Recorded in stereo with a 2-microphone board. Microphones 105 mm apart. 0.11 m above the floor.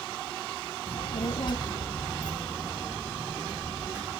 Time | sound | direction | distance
0.9 | a child speaking | 70° left (ahead or behind) | 2 m